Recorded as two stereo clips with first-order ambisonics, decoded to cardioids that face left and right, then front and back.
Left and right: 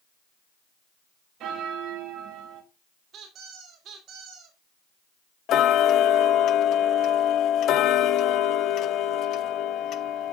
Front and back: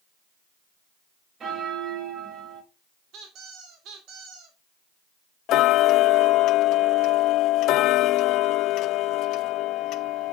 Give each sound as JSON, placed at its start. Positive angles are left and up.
{"t": 1.4, "sound": "a bell", "azimuth_deg": -120, "distance_m": 1.5}
{"t": 3.1, "sound": "a squeak", "azimuth_deg": -145, "distance_m": 2.5}
{"t": 5.5, "sound": "ticking", "azimuth_deg": 40, "distance_m": 0.6}